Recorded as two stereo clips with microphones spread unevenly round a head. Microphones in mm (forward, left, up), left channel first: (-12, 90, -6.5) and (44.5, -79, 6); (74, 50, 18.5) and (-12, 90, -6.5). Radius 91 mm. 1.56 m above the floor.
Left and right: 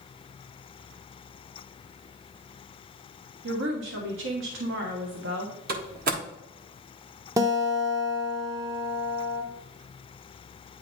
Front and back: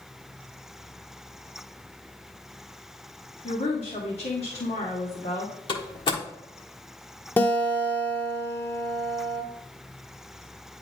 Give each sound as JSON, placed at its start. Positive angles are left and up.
{"t": 3.4, "sound": "a woman speaking", "azimuth_deg": -60, "distance_m": 1.3}
{"t": 5.7, "sound": "a door slam", "azimuth_deg": -40, "distance_m": 1.4}
{"t": 7.4, "sound": "a guitar", "azimuth_deg": -20, "distance_m": 0.8}